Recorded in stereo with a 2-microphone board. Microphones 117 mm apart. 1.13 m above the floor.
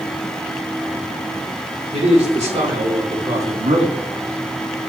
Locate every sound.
1.9 s a man speaking: 85° right, 3.5 m; by 4.0 s 75° right (ahead or behind), 1.8 m